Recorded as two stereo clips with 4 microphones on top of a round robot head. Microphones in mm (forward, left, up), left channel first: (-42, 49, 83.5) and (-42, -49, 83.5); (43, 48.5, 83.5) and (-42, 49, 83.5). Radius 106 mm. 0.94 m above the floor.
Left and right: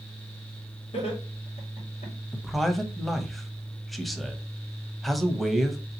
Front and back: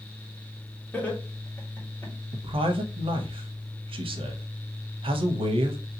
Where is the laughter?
70° left, 2 m.